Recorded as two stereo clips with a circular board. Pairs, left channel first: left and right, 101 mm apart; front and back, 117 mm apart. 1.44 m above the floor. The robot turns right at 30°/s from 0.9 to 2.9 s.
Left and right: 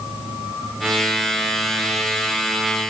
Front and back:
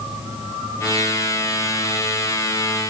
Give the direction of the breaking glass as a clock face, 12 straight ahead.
No breaking glass in this recording.